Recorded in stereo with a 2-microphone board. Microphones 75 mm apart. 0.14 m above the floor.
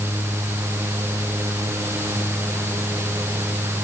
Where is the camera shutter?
I don't hear a camera shutter.